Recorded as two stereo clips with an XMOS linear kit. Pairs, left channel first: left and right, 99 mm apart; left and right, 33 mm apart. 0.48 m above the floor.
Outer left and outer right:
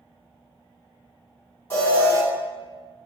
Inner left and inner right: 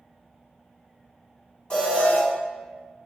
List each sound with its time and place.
1.7 s an alarm: 25° left (ahead or behind), 1.4 m